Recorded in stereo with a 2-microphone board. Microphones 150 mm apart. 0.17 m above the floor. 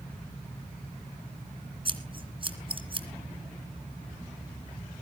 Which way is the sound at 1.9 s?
35° right (ahead or behind).